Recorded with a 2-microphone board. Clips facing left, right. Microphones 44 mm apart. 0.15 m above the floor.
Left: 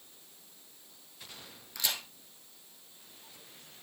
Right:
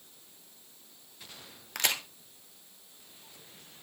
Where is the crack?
60° right (ahead or behind), 0.9 m.